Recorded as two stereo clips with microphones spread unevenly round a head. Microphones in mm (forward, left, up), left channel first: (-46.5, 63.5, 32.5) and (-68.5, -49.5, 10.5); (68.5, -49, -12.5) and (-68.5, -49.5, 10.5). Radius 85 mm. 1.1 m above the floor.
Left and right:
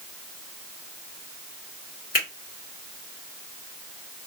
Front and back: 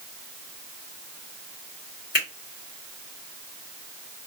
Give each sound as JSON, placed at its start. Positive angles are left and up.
{"t": 2.1, "sound": "a finger snap", "azimuth_deg": 50, "distance_m": 1.8}